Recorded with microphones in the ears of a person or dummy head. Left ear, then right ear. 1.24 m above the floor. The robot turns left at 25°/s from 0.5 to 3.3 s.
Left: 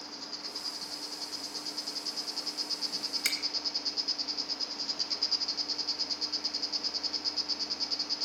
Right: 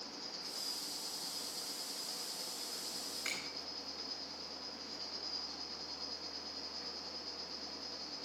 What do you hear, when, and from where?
0.0 s an insect: 135° left, 1.3 m; by 8.2 s 65° left, 1.3 m
3.2 s a finger snap: 65° left (ahead or behind), 2.5 m